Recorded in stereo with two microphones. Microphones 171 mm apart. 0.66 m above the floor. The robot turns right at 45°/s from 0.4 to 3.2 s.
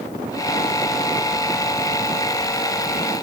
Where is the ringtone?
No ringtone in this recording.